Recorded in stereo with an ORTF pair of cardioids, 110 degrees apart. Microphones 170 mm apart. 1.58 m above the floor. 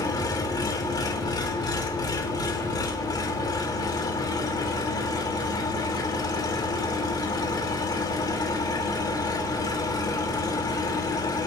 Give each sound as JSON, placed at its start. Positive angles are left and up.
{"t": 0.0, "sound": "an engine running", "azimuth_deg": 25, "distance_m": 3.0}